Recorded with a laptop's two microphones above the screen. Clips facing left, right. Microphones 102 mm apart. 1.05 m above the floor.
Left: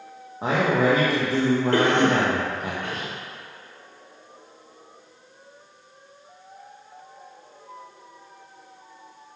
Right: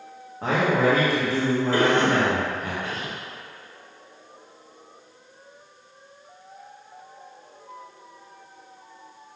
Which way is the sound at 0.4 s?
20° left (ahead or behind).